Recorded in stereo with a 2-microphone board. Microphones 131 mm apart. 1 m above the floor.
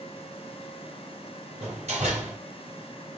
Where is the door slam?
60° right (ahead or behind), 3.5 m.